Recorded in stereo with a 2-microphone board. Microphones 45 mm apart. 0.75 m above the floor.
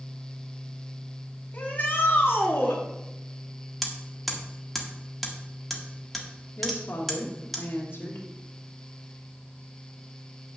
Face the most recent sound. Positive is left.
turn(degrees=60)  # may be behind; listen again after turning